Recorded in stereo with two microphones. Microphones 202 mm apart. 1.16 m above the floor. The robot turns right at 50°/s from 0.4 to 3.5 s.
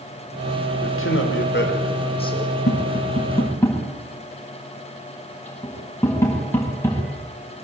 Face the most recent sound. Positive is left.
turn(degrees=15)  # may be behind; listen again after turning